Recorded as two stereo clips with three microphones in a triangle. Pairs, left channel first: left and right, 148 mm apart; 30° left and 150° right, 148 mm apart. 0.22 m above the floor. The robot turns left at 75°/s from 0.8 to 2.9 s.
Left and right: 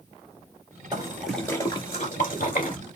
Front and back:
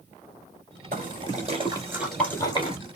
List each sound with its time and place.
0.9 s a splash: 150° right, 2 m; by 2.8 s 70° left, 2 m